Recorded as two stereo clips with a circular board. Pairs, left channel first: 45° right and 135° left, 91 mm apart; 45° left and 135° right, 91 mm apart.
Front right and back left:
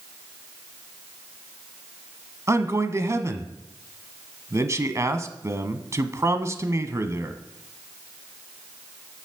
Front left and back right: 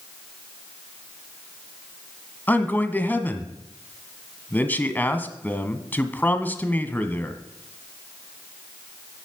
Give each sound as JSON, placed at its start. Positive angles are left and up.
{"t": 2.5, "sound": "a man speaking", "azimuth_deg": 105, "distance_m": 1.2}